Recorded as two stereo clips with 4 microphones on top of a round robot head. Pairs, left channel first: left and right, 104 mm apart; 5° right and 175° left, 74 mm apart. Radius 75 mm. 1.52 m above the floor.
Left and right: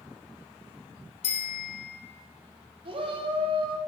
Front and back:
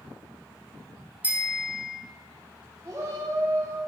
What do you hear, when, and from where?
1.2 s a bicycle bell: 105° left, 4.5 m
2.9 s a shout: 120° right, 3 m